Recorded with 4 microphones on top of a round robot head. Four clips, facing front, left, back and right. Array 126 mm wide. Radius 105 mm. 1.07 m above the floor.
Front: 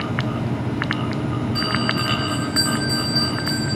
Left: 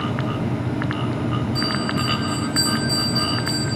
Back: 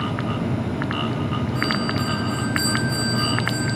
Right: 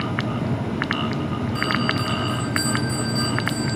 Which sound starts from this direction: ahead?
A bell, at 1.6 s.